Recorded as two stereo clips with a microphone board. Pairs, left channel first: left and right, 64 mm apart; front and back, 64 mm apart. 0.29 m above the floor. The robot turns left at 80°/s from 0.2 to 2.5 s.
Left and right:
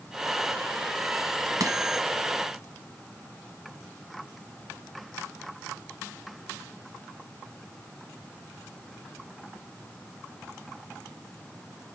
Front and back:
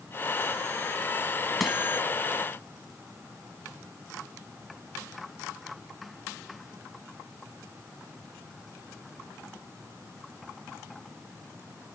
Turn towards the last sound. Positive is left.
turn(degrees=-160)